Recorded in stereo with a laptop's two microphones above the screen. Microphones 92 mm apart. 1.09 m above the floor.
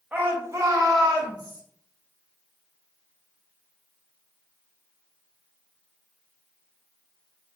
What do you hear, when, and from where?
0.1 s a shout: 15° right (ahead or behind), 0.6 m; by 1.6 s 45° right (ahead or behind), 1.4 m